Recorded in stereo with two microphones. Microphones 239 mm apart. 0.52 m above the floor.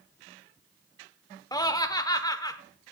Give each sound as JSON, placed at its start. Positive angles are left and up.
{"t": 1.5, "sound": "laughter", "side_deg": 15, "distance_m": 1.1}